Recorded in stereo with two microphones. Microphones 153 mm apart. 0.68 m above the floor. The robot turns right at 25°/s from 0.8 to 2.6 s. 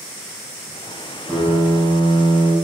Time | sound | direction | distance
1.3 | a piano | 5° left | 4 m